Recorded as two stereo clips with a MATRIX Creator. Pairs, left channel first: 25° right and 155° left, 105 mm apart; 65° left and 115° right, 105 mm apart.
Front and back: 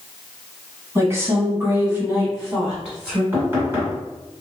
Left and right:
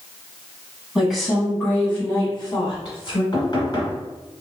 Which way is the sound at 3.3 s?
95° left.